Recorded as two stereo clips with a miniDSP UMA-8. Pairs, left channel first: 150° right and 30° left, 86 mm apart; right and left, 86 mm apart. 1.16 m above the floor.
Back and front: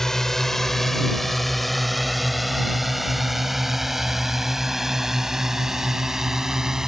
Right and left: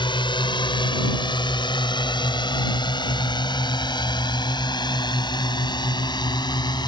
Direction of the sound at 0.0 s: 65° right.